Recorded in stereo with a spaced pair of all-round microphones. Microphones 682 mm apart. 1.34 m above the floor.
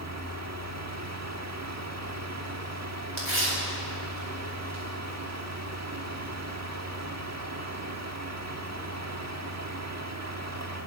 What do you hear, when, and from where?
0.0 s a fan: 25° right (ahead or behind), 1.5 m
3.2 s tearing paper: 75° right (ahead or behind), 8.5 m